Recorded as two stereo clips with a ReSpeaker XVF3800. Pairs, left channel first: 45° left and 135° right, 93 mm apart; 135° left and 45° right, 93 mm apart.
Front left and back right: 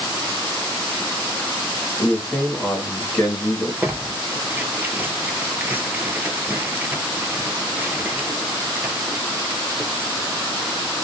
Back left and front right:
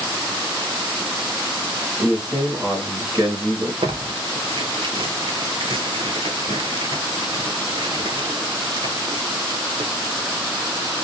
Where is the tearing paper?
65° right, 0.5 m.